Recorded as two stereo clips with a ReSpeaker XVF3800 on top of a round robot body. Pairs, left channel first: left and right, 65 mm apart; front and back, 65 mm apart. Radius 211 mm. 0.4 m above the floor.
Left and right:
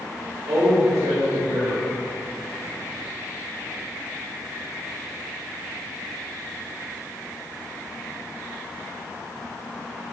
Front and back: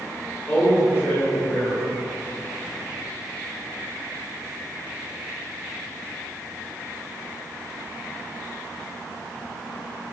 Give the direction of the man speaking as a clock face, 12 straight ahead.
2 o'clock.